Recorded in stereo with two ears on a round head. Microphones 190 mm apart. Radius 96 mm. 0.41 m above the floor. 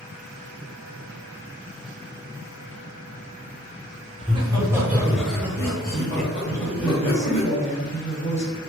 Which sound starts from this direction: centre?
A woman speaking, at 6.5 s.